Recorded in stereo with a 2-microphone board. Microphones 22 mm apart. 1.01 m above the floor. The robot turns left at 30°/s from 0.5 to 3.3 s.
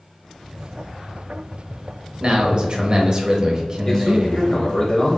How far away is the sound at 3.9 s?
About 0.7 m.